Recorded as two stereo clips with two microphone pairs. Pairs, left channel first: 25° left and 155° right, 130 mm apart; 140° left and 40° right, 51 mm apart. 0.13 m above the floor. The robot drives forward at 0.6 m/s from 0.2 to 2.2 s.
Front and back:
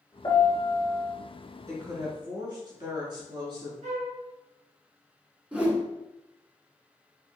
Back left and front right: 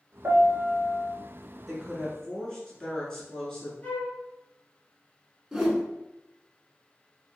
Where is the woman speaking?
135° right, 1.1 m; by 3.7 s 155° right, 1.2 m.